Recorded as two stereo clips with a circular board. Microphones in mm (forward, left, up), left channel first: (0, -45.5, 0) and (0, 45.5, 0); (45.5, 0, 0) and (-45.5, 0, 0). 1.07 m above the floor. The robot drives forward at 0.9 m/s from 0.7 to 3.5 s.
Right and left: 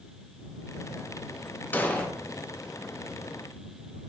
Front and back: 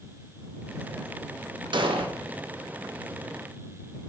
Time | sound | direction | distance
1.7 | an explosion | 160° right | 0.6 m